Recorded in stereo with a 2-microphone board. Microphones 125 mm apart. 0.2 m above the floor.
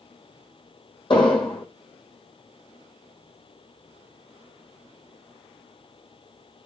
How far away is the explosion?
About 1.2 m.